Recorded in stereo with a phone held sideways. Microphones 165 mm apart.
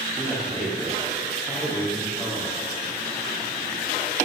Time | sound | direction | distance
0.2 | a man speaking | 15° left (ahead or behind) | 2.5 m